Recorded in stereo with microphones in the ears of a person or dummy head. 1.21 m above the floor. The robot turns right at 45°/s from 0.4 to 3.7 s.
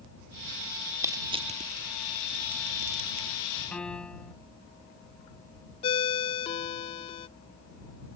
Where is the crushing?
15° right (ahead or behind); by 3.3 s 65° right (ahead or behind).